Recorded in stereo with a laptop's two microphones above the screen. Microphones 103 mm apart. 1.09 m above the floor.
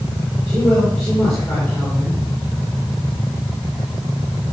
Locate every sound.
0.5 s a man speaking: 15° left (ahead or behind), 3.5 m